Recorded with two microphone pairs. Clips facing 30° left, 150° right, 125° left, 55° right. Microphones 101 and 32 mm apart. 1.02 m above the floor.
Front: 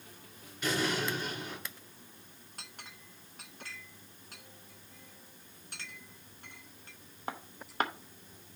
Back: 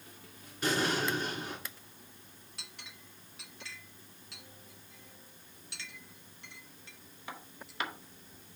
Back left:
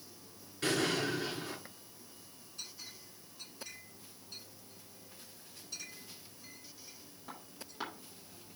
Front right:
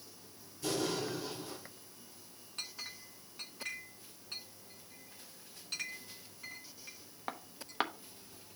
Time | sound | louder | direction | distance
0.6 | an explosion | back 1 dB, back left 3 dB | 160° left | 3 m
2.6 | a clink | front 2 dB, front right 4 dB | 15° right | 0.9 m